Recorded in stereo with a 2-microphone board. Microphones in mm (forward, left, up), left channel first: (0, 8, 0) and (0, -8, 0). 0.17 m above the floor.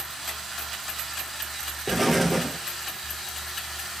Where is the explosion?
Centre (ahead or behind), 0.5 m.